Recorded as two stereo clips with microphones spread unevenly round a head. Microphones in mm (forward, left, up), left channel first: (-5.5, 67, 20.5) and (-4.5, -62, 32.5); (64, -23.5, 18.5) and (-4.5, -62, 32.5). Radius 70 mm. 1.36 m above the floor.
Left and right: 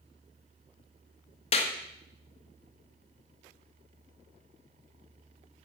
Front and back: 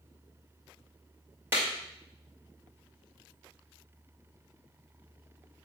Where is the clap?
135° left, 1.9 m.